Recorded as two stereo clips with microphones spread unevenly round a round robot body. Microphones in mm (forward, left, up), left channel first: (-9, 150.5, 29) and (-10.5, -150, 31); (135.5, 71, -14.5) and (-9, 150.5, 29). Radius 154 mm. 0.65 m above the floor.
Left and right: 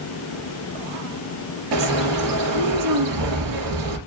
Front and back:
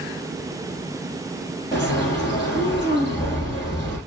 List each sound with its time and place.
1.7 s a bird: 110° right, 3 m